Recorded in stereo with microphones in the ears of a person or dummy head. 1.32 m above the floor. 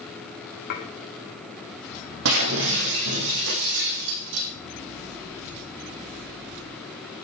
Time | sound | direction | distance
0.7 | dishes clattering | 55° left (ahead or behind) | 2.5 m
2.2 | breaking glass | 75° right (ahead or behind) | 6 m